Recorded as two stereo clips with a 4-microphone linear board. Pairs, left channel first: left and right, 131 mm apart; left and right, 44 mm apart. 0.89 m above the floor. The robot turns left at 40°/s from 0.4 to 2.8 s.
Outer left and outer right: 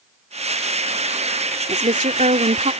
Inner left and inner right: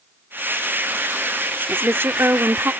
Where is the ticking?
No ticking in this recording.